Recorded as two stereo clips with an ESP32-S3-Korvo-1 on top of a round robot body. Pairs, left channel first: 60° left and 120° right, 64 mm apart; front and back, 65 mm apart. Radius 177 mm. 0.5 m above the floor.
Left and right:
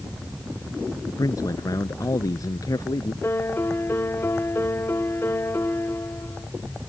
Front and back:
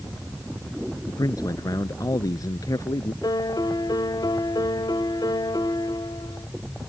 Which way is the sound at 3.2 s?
5° left.